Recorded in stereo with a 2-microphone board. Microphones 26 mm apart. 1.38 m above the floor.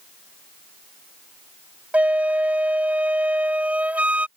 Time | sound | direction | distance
1.9 | a flute | 65° right (ahead or behind) | ?